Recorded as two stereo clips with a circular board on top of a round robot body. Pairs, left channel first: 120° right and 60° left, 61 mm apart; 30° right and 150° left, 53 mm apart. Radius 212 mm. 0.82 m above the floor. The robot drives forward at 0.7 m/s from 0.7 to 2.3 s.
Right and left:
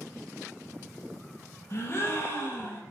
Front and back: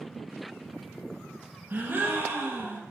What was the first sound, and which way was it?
A gasp, 160° right.